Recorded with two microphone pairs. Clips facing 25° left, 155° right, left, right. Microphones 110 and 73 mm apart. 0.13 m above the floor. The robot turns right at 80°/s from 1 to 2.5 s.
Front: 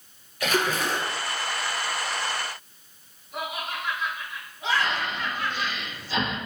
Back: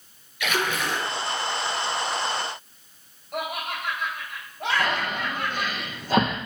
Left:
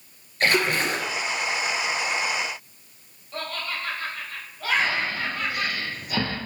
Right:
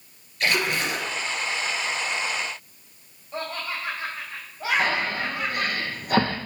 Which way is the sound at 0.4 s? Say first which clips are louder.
Front 1 dB, left 2 dB; 55° left.